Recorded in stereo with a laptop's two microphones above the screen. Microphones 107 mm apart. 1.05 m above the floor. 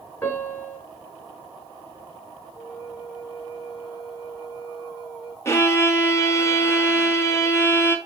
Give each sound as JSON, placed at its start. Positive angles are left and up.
{"t": 0.2, "sound": "a piano", "side_deg": 15, "distance_m": 3.0}
{"t": 2.5, "sound": "a flute", "side_deg": -5, "distance_m": 5.0}
{"t": 5.5, "sound": "a violin", "side_deg": 25, "distance_m": 1.4}